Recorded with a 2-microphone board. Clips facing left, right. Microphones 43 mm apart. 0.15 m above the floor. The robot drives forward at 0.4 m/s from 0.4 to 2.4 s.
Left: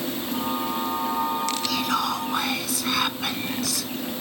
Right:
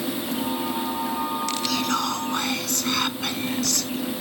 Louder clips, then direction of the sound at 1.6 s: Right 1 dB; 5° left (ahead or behind).